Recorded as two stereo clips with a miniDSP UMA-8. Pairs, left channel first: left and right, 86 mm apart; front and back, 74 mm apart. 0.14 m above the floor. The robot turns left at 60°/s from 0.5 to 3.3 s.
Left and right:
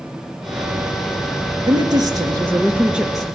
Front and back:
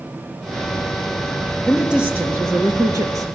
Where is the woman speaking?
85° right, 2.5 m; by 3.2 s straight behind, 2.5 m.